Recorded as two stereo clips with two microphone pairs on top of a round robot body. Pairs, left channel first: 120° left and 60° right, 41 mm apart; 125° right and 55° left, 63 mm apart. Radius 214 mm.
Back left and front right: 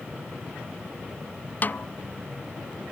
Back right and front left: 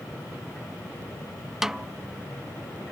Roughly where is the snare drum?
Behind left.